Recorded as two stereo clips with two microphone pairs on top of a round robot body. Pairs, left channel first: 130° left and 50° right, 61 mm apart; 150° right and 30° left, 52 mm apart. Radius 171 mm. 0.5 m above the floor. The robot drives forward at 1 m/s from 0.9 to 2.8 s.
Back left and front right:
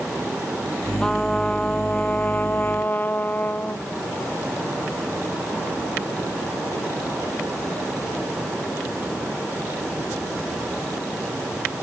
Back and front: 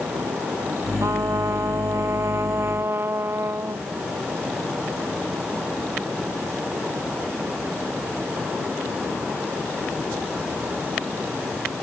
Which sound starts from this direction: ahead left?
A trumpet, at 1.0 s.